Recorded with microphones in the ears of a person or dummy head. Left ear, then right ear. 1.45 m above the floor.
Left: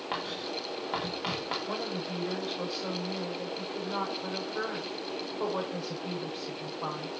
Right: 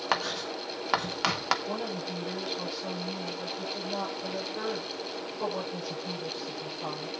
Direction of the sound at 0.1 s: 50° right (ahead or behind).